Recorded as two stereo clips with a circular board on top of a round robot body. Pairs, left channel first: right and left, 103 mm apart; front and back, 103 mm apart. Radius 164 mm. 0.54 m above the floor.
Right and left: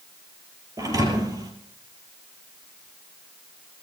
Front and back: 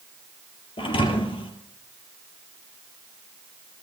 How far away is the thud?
About 3 m.